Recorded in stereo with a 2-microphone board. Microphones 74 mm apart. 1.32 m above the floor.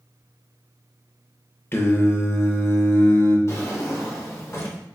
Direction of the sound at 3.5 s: 40° left (ahead or behind).